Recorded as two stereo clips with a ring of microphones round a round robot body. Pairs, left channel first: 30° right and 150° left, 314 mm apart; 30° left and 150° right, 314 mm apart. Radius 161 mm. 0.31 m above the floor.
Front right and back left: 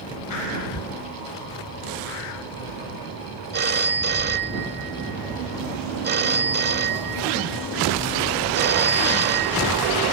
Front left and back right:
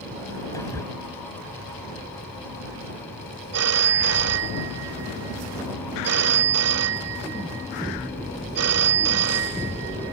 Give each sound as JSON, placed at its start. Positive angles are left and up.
{"t": 0.5, "sound": "whispering", "azimuth_deg": -50}
{"t": 3.5, "sound": "a phone ringing", "azimuth_deg": -165}